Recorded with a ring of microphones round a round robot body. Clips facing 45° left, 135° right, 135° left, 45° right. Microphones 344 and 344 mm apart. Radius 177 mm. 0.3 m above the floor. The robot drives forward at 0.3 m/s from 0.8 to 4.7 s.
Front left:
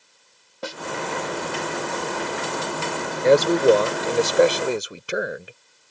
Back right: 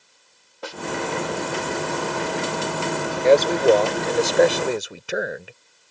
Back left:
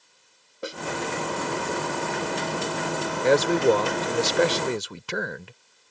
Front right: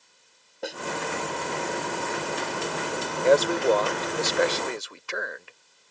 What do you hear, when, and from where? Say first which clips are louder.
0.6 s a snare drum: front left 1 dB, even; 50° left
3.2 s a man speaking: even, back left 1 dB; 105° left; by 5.5 s 130° left